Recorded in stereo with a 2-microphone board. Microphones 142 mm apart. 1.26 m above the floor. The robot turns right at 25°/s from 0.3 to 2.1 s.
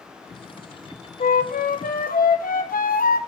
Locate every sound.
1.2 s a flute: 75° left (ahead or behind), 0.6 m; by 3.2 s 80° left, 0.6 m